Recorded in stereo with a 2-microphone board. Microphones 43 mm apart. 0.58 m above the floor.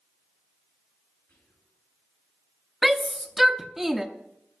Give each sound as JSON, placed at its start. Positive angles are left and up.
{"t": 1.3, "sound": "whispering", "side_deg": 85, "distance_m": 7.5}
{"t": 2.8, "sound": "a shout", "side_deg": -5, "distance_m": 0.6}